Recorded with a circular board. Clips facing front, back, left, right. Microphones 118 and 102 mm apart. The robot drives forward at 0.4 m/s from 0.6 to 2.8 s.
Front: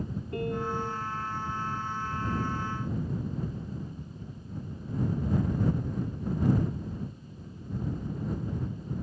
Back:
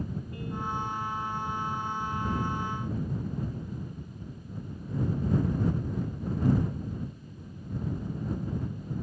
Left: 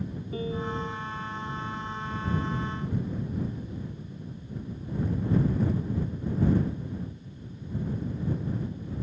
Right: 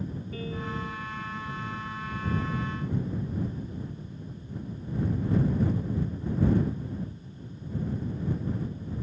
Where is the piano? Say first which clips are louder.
Front 5 dB, left 5 dB; 25° left.